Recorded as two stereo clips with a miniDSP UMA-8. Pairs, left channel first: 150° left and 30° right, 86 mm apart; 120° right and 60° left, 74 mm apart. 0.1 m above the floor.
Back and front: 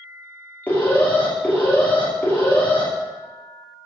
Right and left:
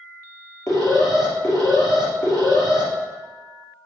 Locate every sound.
0.7 s an alarm: 145° right, 2.5 m